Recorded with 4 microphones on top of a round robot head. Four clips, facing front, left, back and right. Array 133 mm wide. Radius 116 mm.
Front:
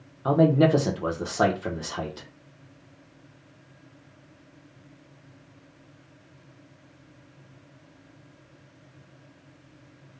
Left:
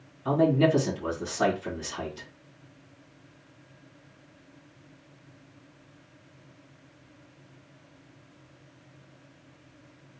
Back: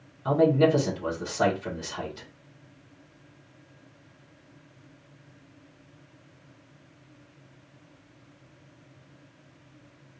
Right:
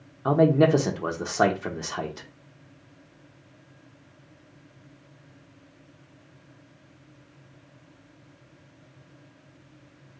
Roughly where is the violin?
No violin in this recording.